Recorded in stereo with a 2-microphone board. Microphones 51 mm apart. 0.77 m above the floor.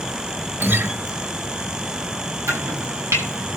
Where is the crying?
I don't hear crying.